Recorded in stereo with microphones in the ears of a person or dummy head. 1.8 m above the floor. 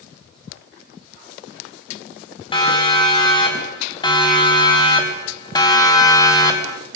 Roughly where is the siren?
Left.